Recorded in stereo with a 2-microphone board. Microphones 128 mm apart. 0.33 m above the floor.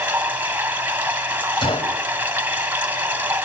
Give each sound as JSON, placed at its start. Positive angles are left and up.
{"t": 0.0, "sound": "running water", "side_deg": -15, "distance_m": 2.0}
{"t": 1.6, "sound": "a gunshot", "side_deg": 45, "distance_m": 2.0}